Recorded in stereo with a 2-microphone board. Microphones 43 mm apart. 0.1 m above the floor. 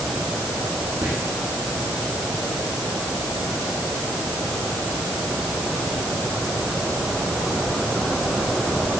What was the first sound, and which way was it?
Whispering, 40° right (ahead or behind).